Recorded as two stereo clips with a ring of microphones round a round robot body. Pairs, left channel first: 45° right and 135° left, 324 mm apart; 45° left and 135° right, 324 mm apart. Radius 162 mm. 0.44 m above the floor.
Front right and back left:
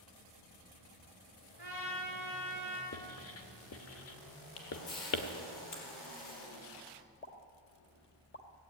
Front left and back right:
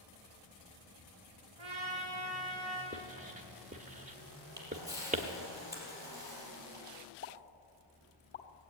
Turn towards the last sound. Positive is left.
turn(degrees=0)